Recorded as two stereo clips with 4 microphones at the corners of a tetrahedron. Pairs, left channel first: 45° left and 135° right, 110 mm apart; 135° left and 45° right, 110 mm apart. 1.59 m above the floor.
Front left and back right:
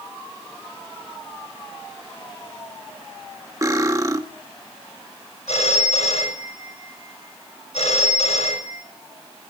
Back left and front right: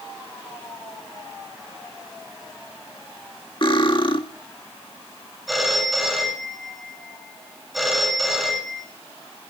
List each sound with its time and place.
3.6 s cutlery clinking: 170° left, 1.7 m
5.5 s a phone ringing: 45° left, 6.5 m